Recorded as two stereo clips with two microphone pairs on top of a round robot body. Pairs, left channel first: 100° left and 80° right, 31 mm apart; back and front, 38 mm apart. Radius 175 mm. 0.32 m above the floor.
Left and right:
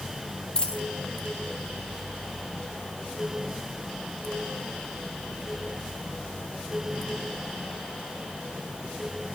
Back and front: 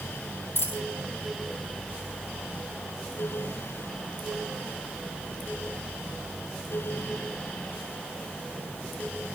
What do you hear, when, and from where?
0.6 s a dropped coin: 155° left, 1.6 m